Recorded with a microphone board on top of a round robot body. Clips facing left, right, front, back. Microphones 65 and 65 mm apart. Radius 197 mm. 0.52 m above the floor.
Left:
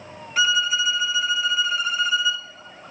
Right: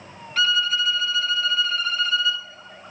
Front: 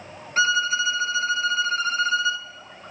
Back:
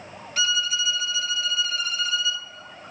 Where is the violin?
20° left, 1.1 m.